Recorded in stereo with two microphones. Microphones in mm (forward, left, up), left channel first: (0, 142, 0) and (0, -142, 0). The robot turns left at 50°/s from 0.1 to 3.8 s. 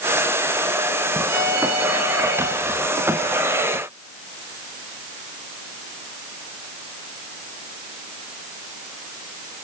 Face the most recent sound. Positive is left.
turn(degrees=150)